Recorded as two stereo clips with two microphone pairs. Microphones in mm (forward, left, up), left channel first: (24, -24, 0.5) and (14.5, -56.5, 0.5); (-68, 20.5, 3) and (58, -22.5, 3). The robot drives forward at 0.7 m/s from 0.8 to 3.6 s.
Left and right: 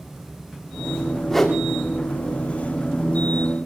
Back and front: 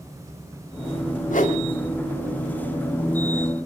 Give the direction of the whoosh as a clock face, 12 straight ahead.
7 o'clock.